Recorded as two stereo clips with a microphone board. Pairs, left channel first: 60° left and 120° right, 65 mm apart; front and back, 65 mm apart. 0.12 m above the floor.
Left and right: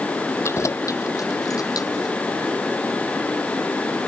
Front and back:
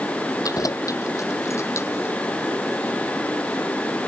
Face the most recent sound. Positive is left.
turn(degrees=45)